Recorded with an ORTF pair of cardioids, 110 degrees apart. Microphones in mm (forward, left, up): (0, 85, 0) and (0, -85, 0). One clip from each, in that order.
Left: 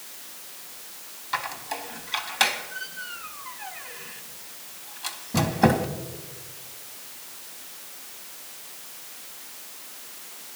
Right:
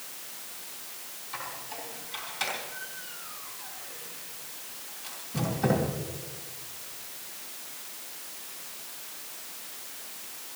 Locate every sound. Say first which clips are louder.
1.3 s a squeak: left 9 dB; 70° left, 3 m